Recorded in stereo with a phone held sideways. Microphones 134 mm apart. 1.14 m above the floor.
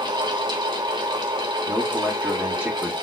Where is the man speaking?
10° right (ahead or behind), 1.8 m.